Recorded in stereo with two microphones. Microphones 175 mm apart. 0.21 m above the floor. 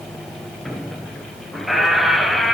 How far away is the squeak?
About 0.6 m.